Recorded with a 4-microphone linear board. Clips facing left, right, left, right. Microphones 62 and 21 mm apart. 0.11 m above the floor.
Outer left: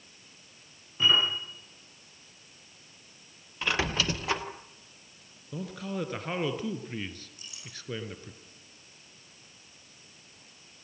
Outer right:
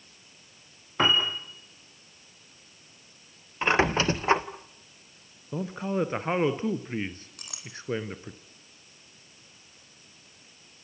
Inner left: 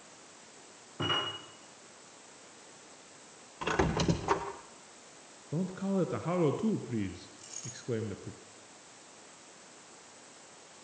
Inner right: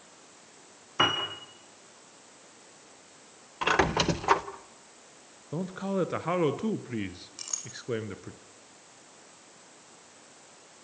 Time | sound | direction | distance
1.0 | a piano | 70° right (ahead or behind) | 6.5 m
3.6 | a squeak | 30° right (ahead or behind) | 1.6 m
5.5 | a man speaking | 25° right (ahead or behind) | 1.5 m
7.4 | a clink | 65° right (ahead or behind) | 4 m